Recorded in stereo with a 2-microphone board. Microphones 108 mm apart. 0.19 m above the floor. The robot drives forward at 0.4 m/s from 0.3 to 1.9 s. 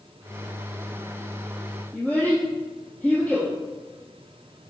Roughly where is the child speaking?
Centre.